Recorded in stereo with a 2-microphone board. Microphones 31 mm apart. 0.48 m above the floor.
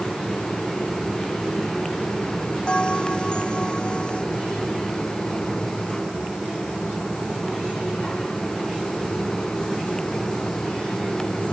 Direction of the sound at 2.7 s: 25° left (ahead or behind).